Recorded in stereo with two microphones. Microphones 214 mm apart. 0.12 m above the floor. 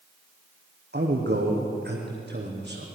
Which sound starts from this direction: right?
A man speaking, at 0.9 s.